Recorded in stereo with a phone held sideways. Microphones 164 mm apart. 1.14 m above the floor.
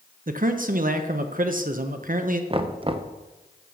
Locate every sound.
0.3 s a man speaking: 55° right (ahead or behind), 0.6 m
2.5 s knocking: 35° right (ahead or behind), 0.5 m